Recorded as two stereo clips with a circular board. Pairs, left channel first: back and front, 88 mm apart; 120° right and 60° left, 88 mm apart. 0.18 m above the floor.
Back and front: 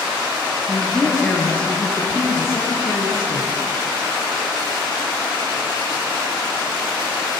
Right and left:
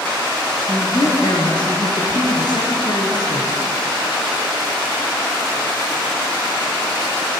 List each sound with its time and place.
0.7 s a woman speaking: 90° right, 3 m; by 3.6 s 145° right, 3 m